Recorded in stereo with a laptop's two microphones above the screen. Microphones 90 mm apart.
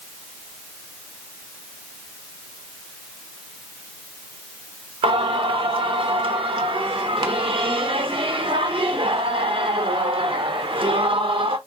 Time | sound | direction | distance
5.0 | singing | 75° right (ahead or behind) | 0.7 m